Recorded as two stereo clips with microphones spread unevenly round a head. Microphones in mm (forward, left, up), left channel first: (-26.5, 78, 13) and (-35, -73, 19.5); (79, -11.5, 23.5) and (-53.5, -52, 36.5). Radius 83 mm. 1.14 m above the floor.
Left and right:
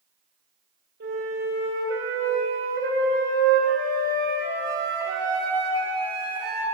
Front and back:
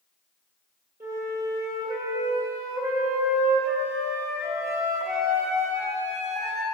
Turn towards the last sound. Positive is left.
turn(degrees=-95)